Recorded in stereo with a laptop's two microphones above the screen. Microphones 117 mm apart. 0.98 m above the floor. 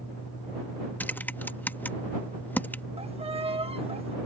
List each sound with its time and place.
0.0 s a fan: 65° left (ahead or behind)
1.0 s typing on a keyboard: 15° left (ahead or behind)
3.0 s a violin: 55° right (ahead or behind)